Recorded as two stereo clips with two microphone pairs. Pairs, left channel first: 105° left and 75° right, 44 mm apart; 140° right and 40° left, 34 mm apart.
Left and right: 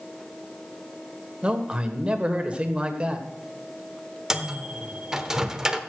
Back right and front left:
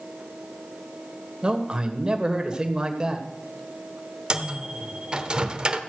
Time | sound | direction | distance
1.4 | a man speaking | 20° right | 1.8 m
4.3 | a microwave | 5° right | 1.0 m